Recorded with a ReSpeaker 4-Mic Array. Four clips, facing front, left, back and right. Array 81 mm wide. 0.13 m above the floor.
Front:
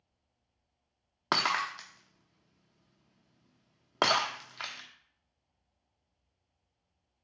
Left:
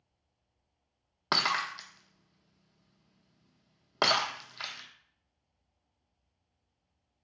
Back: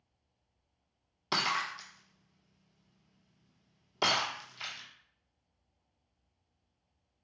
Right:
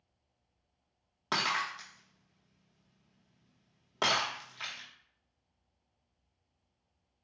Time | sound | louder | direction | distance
1.3 | breaking glass | left 2 dB, front 3 dB | 25° left | 0.8 m